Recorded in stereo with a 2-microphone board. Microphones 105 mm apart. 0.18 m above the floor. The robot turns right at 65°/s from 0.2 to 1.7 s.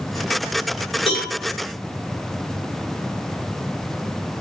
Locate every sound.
1.1 s a cowbell: 60° left (ahead or behind), 1.8 m; by 1.3 s 45° left (ahead or behind), 1.8 m